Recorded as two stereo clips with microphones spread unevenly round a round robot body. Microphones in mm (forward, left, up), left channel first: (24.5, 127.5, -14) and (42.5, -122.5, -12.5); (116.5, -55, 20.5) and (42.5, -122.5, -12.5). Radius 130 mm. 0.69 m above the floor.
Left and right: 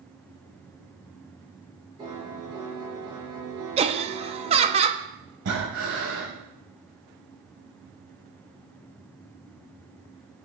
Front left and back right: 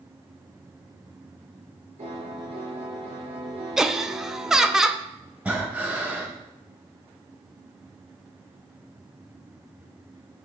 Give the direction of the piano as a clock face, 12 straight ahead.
5 o'clock.